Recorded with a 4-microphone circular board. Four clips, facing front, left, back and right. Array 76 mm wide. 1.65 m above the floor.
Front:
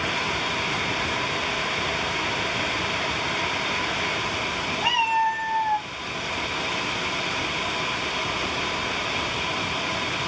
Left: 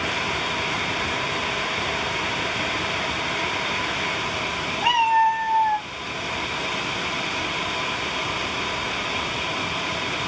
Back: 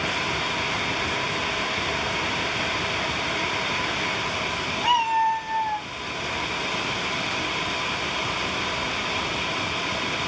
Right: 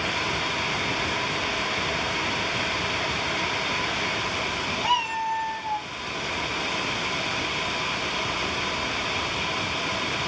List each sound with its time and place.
4.8 s a cat meowing: 70° left, 3.5 m; by 5.9 s 75° left, 2.5 m